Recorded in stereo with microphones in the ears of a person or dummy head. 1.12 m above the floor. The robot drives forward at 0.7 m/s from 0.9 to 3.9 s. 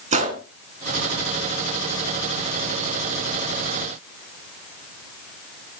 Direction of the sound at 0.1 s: 40° right (ahead or behind).